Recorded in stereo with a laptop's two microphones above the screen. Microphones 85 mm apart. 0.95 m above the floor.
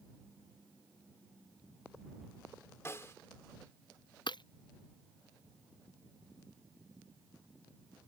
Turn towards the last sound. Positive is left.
turn(degrees=60)  # may be behind; listen again after turning